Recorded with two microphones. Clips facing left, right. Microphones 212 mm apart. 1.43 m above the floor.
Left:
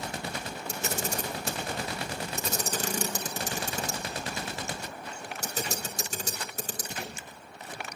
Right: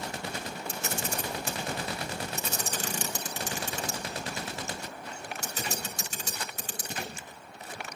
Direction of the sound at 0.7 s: 40° left (ahead or behind).